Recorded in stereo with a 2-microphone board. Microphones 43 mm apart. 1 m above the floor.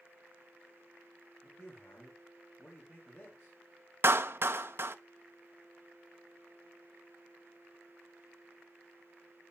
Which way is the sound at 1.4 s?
55° left (ahead or behind).